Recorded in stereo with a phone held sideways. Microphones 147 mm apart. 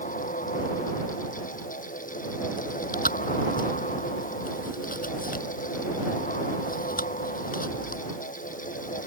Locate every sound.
0.0 s a fan: 60° left (ahead or behind)
2.6 s chewing: 70° left (ahead or behind)